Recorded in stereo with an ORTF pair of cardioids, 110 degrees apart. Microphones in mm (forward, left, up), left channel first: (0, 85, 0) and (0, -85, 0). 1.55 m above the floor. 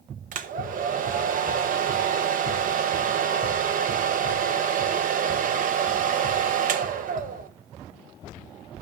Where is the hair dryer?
55° right, 1.4 m.